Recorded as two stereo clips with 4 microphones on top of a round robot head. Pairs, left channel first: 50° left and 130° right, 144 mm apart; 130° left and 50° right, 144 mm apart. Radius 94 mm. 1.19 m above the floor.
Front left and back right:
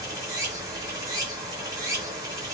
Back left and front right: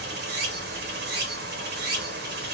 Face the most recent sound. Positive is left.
turn(degrees=-60)